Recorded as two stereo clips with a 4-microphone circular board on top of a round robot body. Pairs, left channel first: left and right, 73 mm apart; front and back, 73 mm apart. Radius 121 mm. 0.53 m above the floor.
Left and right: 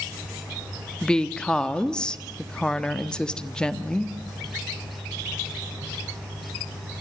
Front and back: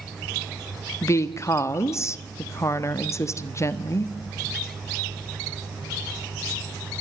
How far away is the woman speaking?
About 1.5 m.